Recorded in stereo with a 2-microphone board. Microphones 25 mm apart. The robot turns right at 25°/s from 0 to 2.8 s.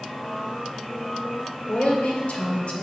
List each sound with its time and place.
1.7 s a woman speaking: 70° left (ahead or behind), 2.0 m; by 2.8 s 50° left (ahead or behind), 2.0 m